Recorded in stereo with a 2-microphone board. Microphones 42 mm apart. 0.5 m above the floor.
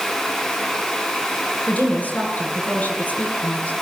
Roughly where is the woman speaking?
Left.